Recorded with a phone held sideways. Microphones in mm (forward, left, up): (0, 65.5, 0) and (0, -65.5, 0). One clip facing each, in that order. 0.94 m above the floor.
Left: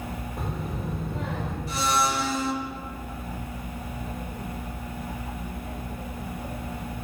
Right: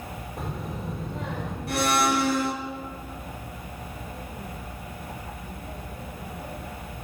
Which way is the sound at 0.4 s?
Centre (ahead or behind).